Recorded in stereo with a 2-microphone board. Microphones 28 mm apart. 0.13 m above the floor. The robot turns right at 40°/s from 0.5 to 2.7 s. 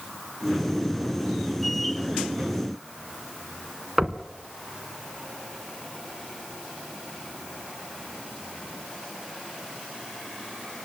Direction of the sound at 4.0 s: 20° right (ahead or behind).